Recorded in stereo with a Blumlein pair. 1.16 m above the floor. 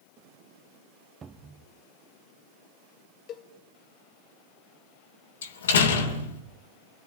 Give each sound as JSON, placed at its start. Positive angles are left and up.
{"t": 1.2, "sound": "a cupboard door", "azimuth_deg": -20, "distance_m": 1.1}
{"t": 3.3, "sound": "a cowbell", "azimuth_deg": 35, "distance_m": 1.4}
{"t": 5.4, "sound": "a door slam", "azimuth_deg": 65, "distance_m": 2.5}